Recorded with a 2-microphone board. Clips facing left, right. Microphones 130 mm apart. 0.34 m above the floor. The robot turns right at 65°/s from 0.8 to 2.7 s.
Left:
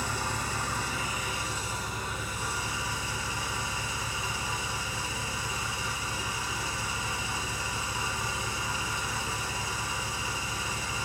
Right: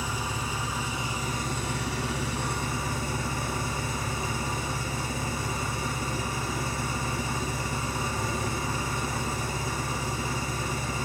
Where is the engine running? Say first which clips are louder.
Right 1 dB; 175° right, 4 m; by 11.1 s 50° right, 4 m.